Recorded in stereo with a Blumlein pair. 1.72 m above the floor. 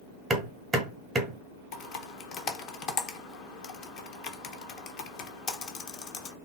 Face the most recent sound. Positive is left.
turn(degrees=35)